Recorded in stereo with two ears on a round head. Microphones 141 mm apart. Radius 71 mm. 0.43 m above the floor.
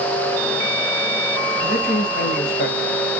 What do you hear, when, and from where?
1.6 s a man speaking: 65° left (ahead or behind), 3.5 m; by 2.9 s 55° left (ahead or behind), 2.5 m